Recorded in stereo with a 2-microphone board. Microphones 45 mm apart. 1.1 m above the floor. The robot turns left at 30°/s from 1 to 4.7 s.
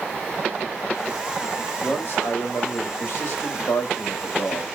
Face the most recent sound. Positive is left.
turn(degrees=50)